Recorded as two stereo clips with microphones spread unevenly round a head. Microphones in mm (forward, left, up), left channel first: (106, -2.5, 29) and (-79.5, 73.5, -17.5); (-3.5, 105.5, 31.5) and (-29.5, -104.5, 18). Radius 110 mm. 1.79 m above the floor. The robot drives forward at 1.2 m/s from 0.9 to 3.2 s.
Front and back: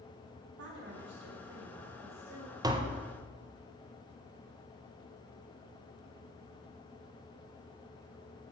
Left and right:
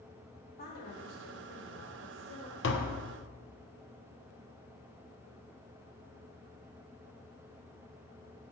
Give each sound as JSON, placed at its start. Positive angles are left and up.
{"t": 0.6, "sound": "a woman speaking", "azimuth_deg": 130, "distance_m": 4.5}
{"t": 2.6, "sound": "tapping", "azimuth_deg": 80, "distance_m": 1.2}